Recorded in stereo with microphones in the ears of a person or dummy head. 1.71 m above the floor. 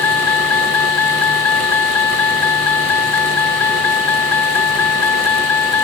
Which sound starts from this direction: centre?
A vehicle, at 0.0 s.